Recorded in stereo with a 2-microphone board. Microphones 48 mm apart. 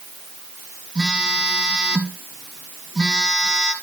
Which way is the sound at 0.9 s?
15° right (ahead or behind).